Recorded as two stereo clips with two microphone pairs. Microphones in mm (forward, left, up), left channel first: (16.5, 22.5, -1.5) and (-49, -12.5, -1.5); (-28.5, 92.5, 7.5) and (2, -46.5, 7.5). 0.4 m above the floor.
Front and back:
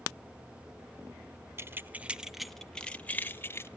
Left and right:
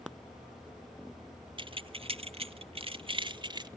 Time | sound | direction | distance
1.6 | keys jangling | 115° right | 0.8 m